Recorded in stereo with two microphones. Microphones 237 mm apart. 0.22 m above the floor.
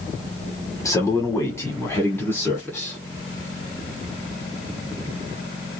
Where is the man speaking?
15° left (ahead or behind), 1.2 m; by 3.0 s 5° left (ahead or behind), 2 m.